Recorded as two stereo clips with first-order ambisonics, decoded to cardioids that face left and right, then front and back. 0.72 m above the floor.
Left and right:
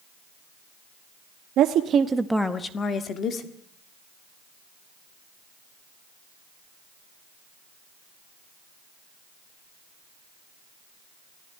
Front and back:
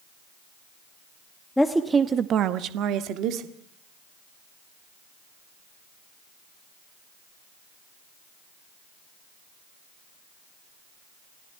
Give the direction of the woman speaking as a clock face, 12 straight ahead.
3 o'clock.